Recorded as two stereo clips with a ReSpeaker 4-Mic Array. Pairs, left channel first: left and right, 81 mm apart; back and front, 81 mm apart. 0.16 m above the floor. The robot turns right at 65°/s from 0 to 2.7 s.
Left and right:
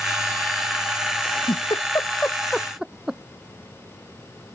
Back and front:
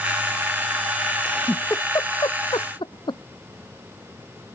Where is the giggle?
90° left; by 3.2 s 175° right.